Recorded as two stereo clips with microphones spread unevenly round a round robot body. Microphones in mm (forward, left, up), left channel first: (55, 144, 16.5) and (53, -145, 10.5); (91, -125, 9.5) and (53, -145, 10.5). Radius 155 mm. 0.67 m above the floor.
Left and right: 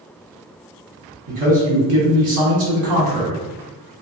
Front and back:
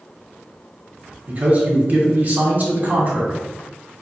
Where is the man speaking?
105° right, 1.7 m.